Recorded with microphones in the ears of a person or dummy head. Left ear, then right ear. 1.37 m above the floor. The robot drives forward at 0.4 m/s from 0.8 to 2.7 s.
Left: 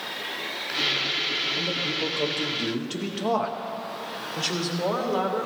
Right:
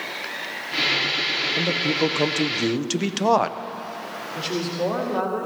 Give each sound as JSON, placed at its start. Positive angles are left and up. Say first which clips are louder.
{"t": 1.6, "sound": "a man speaking", "louder": "right 5 dB", "side_deg": -60, "distance_m": 0.7}
{"t": 4.3, "sound": "a woman speaking", "louder": "right 2 dB", "side_deg": 5, "distance_m": 2.0}